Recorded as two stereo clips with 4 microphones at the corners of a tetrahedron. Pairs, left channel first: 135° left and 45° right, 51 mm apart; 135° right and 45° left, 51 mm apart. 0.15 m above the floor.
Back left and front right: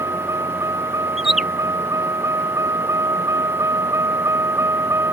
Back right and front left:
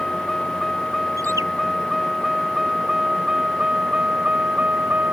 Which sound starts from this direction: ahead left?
A bird, at 1.2 s.